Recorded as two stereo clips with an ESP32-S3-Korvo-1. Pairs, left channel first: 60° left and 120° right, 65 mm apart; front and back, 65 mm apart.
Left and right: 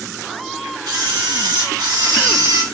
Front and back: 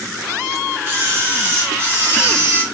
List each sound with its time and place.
0.9 s a camera shutter: 120° right, 2 m